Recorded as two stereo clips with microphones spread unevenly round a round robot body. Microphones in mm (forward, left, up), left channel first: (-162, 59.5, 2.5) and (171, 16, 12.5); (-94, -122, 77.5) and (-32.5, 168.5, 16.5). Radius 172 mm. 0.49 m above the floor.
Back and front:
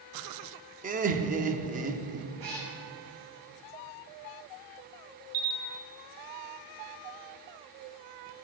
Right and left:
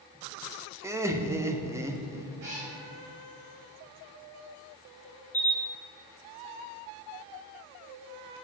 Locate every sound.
0.8 s laughter: 35° left, 0.7 m
2.4 s a cat meowing: 15° left, 3 m
5.3 s a camera shutter: 10° right, 1.2 m